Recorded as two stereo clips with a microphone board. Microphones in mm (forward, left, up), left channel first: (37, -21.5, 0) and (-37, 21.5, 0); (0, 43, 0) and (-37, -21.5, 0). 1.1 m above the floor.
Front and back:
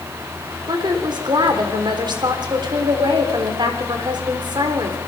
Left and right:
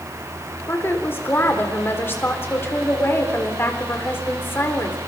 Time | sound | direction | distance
0.7 | a woman speaking | 120° left | 3.5 m